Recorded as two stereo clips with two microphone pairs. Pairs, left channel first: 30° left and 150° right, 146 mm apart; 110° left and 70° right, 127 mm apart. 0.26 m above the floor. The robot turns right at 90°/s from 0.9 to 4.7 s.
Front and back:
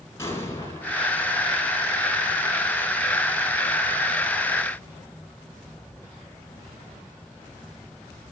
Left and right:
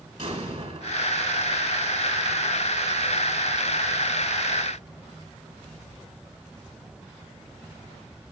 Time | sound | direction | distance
0.2 | an explosion | 40° right | 3 m